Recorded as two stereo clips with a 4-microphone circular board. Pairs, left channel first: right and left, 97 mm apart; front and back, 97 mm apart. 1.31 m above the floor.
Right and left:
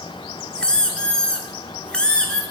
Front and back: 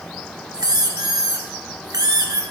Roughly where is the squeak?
Behind.